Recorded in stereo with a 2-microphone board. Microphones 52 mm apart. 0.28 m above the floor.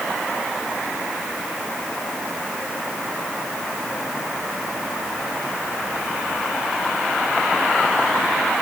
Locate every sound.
Only background noise.